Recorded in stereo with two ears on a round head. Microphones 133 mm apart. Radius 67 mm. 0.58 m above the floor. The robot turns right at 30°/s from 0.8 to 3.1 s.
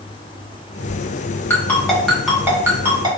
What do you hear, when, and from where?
1.5 s a ringtone: 15° left (ahead or behind), 1.1 m; by 3.1 s 30° right (ahead or behind), 1.1 m